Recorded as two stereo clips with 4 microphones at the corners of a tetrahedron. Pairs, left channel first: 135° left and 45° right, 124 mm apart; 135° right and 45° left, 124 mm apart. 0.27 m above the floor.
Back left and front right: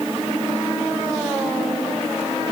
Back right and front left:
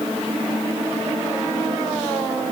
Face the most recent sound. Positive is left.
No sound to turn to.